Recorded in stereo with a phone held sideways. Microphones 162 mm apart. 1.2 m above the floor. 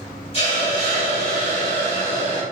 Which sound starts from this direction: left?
A hiss, at 0.3 s.